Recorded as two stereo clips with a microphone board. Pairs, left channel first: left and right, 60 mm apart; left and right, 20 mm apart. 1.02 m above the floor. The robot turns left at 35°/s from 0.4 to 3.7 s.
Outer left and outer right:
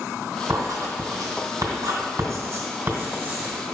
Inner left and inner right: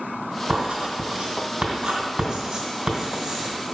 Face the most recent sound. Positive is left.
turn(degrees=-10)  # may be behind; listen again after turning